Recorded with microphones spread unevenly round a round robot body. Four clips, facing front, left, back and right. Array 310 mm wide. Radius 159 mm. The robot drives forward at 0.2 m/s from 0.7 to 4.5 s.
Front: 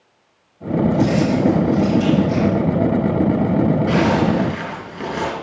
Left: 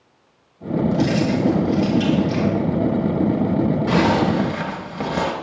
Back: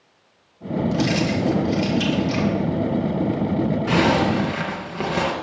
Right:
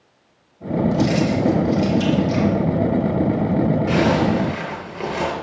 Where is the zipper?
140° left, 3 m.